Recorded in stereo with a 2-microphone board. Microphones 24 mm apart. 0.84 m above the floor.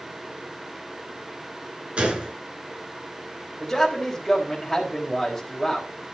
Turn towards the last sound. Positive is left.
turn(degrees=15)  # may be behind; listen again after turning